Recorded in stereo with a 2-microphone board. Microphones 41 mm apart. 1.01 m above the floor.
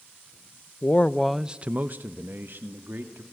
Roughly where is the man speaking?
Left.